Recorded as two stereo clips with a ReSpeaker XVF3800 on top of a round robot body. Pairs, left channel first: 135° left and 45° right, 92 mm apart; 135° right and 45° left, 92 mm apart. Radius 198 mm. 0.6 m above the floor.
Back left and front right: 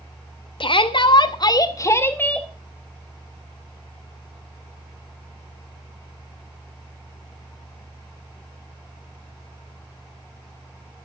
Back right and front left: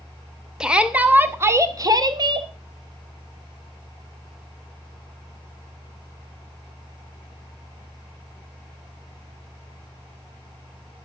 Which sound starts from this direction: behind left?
A shout, at 0.6 s.